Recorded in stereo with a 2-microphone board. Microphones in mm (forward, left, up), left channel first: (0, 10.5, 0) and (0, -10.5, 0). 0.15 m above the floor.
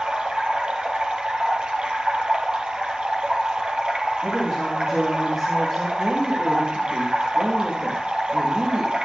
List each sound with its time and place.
0.0 s running water: 45° right (ahead or behind), 3 m
4.2 s a woman speaking: 20° right (ahead or behind), 7.5 m
6.0 s a woman speaking: 30° right (ahead or behind), 8 m